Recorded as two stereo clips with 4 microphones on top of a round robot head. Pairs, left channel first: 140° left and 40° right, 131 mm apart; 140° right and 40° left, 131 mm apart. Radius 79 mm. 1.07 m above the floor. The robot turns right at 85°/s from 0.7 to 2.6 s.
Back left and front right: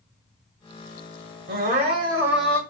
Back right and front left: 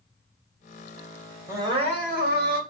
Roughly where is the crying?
Ahead right.